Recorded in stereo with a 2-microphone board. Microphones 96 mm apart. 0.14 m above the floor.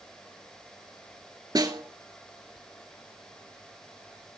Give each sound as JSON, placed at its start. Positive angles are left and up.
{"t": 1.6, "sound": "a snare drum", "side_deg": -45, "distance_m": 2.0}